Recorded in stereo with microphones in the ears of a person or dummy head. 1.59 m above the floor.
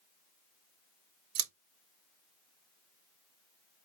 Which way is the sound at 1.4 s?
80° right.